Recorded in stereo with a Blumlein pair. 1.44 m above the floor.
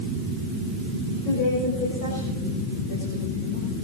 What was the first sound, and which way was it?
A woman speaking, 40° left.